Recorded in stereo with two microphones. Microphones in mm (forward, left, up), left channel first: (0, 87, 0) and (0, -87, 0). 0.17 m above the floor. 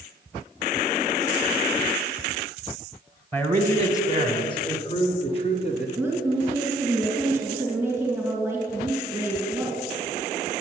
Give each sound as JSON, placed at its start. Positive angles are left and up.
{"t": 3.3, "sound": "a man speaking", "side_deg": 10, "distance_m": 1.6}
{"t": 6.0, "sound": "a woman speaking", "side_deg": -15, "distance_m": 2.5}